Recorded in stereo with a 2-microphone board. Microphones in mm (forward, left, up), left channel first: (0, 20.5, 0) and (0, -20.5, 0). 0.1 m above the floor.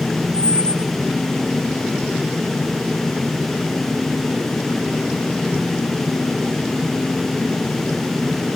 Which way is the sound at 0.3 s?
30° right (ahead or behind).